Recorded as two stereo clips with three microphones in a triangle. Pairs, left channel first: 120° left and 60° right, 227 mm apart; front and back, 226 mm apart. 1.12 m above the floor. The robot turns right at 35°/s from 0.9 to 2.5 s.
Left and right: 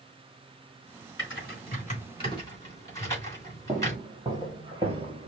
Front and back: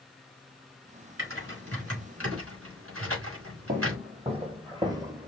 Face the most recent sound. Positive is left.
turn(degrees=-105)